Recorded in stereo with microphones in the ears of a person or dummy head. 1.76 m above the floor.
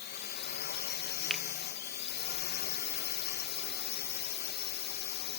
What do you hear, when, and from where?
0.0 s a drone: 50° left (ahead or behind)
1.3 s a finger snap: centre (ahead or behind)